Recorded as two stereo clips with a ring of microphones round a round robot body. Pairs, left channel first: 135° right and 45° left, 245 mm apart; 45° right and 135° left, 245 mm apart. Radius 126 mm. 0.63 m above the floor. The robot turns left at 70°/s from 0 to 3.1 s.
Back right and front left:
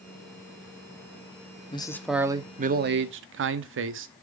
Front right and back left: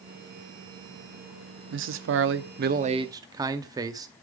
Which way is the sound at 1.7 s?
160° left.